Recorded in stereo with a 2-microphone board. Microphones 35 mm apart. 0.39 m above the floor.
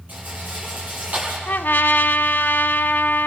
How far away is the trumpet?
About 0.8 m.